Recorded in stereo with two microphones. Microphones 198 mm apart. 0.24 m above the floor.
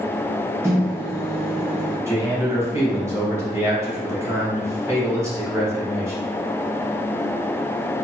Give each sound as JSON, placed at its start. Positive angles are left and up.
{"t": 0.6, "sound": "a microwave", "side_deg": -15, "distance_m": 0.8}
{"t": 2.1, "sound": "a man speaking", "side_deg": -15, "distance_m": 1.0}